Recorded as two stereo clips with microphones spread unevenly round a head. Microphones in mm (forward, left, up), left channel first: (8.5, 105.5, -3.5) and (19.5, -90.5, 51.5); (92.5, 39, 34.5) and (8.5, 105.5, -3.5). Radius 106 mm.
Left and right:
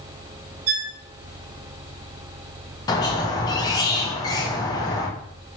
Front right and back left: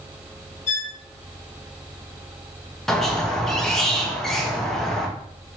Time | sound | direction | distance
0.7 | a violin | 30° right | 1.8 m
2.9 | a squeak | 10° left | 0.6 m